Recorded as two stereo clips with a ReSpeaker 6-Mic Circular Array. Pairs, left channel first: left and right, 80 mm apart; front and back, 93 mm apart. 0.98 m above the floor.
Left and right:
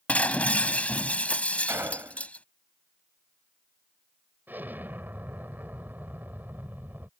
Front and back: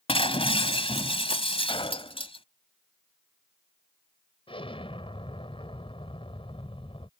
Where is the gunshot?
30° right.